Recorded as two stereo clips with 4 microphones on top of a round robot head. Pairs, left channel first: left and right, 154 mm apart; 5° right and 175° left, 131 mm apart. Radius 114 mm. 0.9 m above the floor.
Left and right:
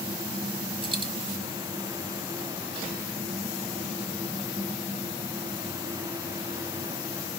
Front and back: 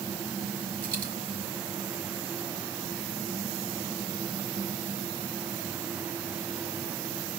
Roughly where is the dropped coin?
Behind right.